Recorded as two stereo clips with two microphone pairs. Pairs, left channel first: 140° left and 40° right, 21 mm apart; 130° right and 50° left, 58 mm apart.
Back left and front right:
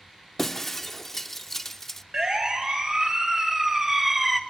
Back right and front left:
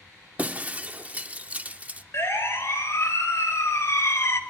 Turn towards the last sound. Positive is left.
turn(degrees=-125)